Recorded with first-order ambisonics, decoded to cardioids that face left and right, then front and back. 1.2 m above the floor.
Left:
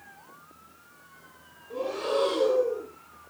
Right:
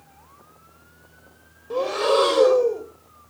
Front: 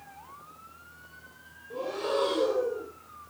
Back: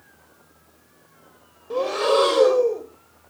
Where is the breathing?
140° right, 2 m.